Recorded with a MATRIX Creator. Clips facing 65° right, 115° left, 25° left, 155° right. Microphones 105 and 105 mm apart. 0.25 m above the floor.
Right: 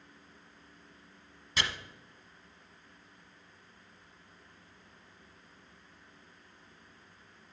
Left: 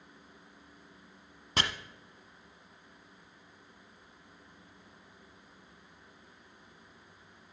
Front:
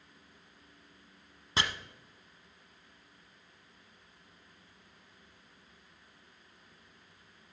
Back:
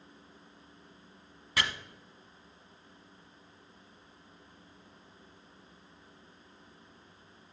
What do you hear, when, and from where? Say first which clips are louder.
1.6 s chopping: left 2 dB, even; 80° left, 0.8 m